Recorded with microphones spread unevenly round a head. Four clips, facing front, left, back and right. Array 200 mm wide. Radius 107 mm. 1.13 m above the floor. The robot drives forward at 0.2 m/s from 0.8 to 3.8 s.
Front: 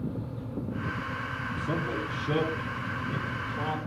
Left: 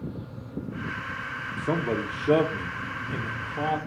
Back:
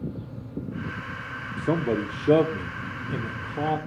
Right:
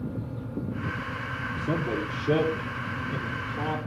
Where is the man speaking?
Straight behind, 2.5 m.